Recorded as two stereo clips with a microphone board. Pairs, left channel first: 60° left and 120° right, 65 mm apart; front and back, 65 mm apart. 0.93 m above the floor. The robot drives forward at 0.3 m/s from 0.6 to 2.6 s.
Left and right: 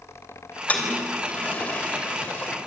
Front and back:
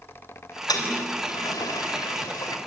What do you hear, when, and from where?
0.7 s a toilet flushing: 5° right, 3 m; by 2.6 s 10° right, 2.5 m